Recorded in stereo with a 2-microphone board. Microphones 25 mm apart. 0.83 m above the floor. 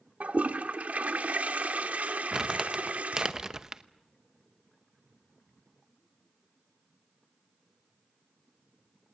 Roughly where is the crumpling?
Right.